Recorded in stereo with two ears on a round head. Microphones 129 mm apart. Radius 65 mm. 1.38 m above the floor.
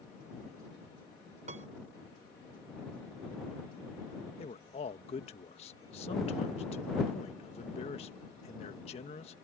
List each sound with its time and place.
1.5 s a piano: 55° right (ahead or behind)
4.4 s a man speaking: 45° left (ahead or behind)